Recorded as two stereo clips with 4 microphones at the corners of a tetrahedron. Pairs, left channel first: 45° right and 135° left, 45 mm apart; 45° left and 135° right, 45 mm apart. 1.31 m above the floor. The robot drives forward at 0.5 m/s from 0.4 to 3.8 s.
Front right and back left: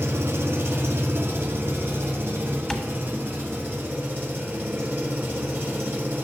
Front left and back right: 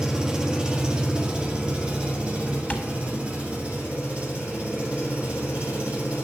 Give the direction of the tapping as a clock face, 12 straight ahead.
11 o'clock.